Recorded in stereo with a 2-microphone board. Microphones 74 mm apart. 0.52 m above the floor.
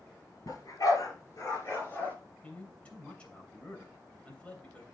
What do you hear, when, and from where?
0.5 s a dog barking: 55° left (ahead or behind), 3.5 m; by 2.1 s 20° left (ahead or behind), 3 m
2.4 s a man speaking: 15° left (ahead or behind), 2.5 m